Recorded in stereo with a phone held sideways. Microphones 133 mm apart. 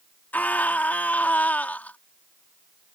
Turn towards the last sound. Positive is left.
turn(degrees=10)  # may be behind; listen again after turning